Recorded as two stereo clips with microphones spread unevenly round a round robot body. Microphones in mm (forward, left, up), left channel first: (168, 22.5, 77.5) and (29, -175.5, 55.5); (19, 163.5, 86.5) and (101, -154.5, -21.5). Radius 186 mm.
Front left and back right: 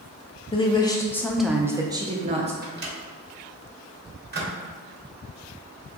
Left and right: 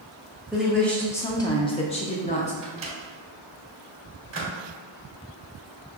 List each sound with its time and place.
0.5 s a woman speaking: 10° right, 0.8 m; by 2.5 s 175° right, 0.9 m
2.6 s a microwave: 90° right, 1.4 m